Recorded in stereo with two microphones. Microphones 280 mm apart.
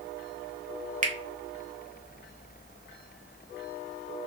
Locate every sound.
1.0 s a finger snap: 30° right (ahead or behind), 0.6 m